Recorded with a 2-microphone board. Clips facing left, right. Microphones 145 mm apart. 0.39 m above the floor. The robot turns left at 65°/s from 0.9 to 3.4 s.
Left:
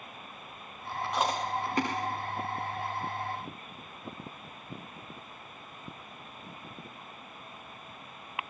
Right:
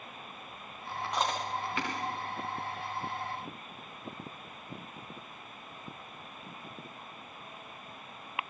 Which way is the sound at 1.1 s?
Centre (ahead or behind).